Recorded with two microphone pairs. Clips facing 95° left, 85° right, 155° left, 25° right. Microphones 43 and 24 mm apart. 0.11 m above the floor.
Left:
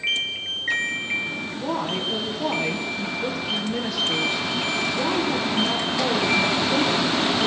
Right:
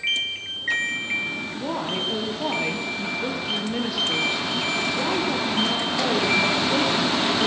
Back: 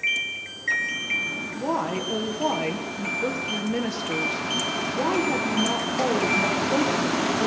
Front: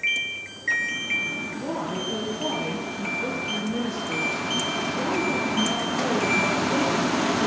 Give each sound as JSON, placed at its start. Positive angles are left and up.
{"t": 1.6, "sound": "a woman speaking", "azimuth_deg": -165, "distance_m": 2.5}